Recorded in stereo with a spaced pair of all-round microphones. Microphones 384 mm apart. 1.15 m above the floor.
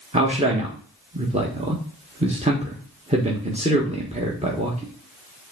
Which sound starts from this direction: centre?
A man speaking, at 0.1 s.